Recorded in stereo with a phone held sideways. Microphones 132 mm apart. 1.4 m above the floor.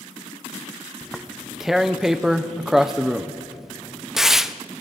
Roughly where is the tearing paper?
Centre.